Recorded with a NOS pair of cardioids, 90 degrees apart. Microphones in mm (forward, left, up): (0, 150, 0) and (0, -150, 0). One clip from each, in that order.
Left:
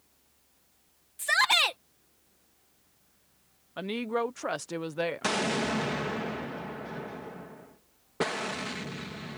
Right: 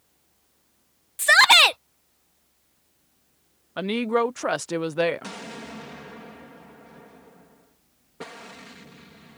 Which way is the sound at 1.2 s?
55° right.